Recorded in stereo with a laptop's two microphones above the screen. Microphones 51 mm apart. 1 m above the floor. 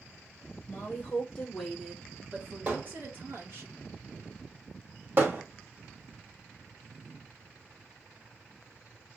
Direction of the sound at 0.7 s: 45° left (ahead or behind).